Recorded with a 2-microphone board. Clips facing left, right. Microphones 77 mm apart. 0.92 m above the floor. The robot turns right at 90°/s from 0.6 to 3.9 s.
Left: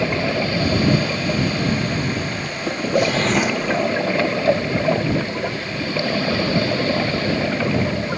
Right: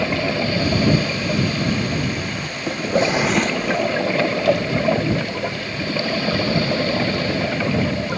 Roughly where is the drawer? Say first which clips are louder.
Even; ahead right.